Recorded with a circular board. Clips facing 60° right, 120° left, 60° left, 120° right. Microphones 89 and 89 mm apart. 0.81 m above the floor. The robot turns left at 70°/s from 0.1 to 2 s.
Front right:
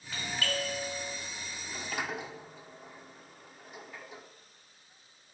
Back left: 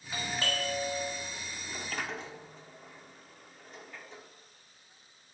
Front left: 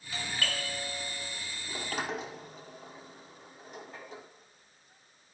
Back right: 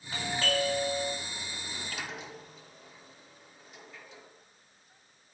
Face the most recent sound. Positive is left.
turn(degrees=20)